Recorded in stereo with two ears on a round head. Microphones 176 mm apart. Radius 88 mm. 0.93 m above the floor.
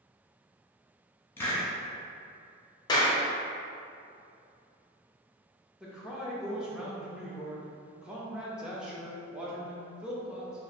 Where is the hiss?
10° left (ahead or behind), 1.2 m.